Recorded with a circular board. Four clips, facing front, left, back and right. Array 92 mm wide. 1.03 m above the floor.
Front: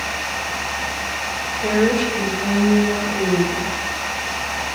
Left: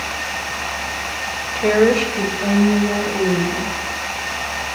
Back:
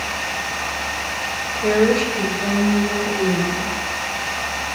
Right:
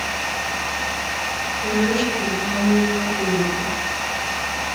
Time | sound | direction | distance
1.6 | a woman speaking | 100° left | 5 m